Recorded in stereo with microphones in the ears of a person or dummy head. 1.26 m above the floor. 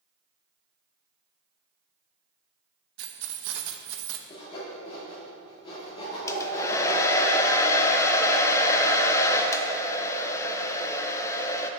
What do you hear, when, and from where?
3.0 s keys jangling: 70° right (ahead or behind), 0.8 m
4.3 s sawing: 30° left (ahead or behind), 2.5 m
6.3 s a hair dryer: 15° left (ahead or behind), 0.5 m